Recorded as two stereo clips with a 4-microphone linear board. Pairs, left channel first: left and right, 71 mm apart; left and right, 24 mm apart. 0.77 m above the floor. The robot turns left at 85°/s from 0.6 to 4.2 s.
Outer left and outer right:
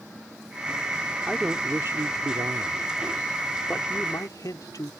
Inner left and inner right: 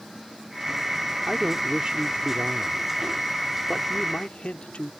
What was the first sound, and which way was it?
A man speaking, 10° left.